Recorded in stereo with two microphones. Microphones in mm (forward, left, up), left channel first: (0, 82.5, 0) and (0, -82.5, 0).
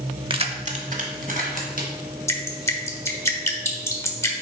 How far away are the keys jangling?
About 0.7 m.